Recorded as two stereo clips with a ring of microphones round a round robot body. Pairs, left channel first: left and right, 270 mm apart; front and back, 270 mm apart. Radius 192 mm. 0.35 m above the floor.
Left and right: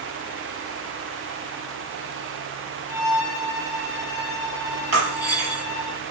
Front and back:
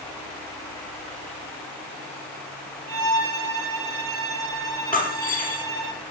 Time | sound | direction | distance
2.9 | a violin | 175° right | 8.5 m
4.9 | breaking glass | 85° right | 5 m